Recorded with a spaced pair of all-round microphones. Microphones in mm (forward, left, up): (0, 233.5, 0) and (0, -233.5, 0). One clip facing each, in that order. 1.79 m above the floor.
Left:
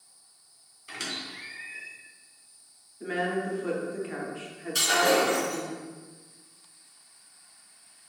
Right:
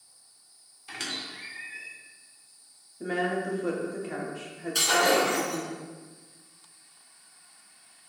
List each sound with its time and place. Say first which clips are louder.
0.9 s a squeak: left 1 dB; 10° right (ahead or behind), 0.7 m
3.0 s a woman speaking: right 1 dB; 65° right (ahead or behind), 0.7 m
4.8 s breaking glass: left 1 dB; 35° left (ahead or behind), 1.1 m